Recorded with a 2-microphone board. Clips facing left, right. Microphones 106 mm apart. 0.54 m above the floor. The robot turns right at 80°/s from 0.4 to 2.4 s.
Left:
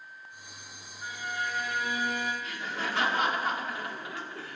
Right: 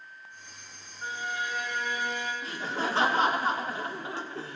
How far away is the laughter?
About 0.9 m.